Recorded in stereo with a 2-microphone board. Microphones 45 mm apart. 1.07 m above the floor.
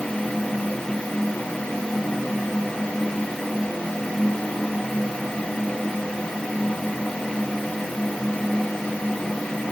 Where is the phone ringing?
I don't hear a phone ringing.